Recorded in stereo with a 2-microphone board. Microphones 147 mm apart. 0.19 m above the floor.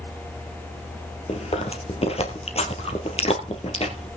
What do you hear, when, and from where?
1.3 s chewing: 45° left (ahead or behind), 2.5 m